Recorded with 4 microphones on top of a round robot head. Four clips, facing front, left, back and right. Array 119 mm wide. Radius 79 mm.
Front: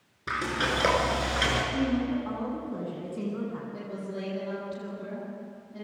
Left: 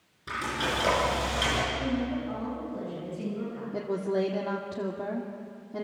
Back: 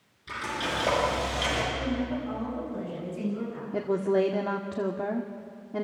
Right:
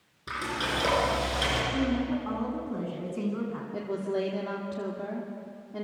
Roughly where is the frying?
Ahead.